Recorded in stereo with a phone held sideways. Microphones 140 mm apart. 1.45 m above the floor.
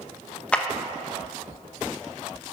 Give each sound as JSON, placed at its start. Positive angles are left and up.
{"t": 0.5, "sound": "a clap", "side_deg": 10, "distance_m": 1.1}